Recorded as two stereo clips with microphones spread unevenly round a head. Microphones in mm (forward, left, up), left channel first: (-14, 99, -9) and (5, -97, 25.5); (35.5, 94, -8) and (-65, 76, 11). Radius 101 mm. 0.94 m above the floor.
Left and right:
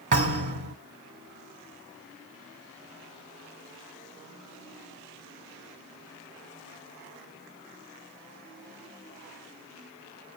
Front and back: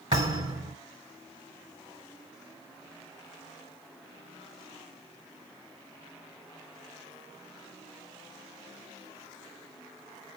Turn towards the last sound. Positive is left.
turn(degrees=-130)